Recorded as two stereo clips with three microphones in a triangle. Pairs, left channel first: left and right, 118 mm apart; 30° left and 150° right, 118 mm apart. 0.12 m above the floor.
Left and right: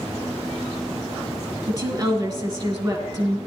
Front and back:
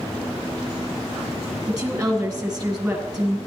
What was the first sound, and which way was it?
A woman speaking, 80° right.